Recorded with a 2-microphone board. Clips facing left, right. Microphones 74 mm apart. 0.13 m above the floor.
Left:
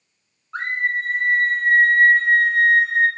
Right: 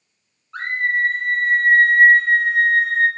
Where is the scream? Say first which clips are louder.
Right 2 dB; 25° left (ahead or behind), 1.2 m; by 3.1 s 40° right (ahead or behind), 1.4 m.